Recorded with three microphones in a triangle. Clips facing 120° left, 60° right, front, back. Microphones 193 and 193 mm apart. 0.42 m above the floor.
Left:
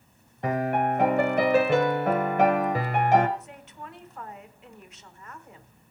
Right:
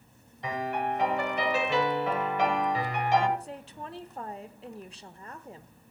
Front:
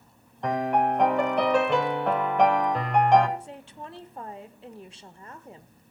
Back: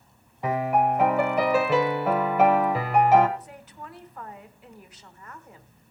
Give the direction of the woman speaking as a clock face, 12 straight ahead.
1 o'clock.